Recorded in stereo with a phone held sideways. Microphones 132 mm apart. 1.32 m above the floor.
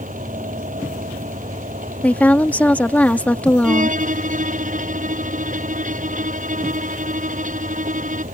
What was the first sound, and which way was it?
A fan, 85° right.